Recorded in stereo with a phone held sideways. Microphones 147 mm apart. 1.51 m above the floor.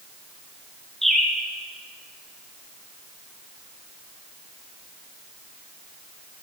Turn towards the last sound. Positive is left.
turn(degrees=0)  # may be behind; listen again after turning